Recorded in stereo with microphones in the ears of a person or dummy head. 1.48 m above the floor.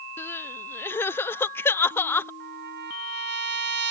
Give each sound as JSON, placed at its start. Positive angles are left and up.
{"t": 0.2, "sound": "crying", "side_deg": 15}
{"t": 2.4, "sound": "a trumpet", "side_deg": -50}